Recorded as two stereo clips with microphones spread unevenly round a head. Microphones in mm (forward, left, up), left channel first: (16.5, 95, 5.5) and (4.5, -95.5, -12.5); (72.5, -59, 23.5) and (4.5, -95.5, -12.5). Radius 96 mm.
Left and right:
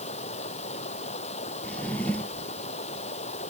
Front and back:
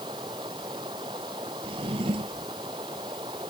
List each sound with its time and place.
0.0 s running water: 145° left
1.6 s a drawer: 170° left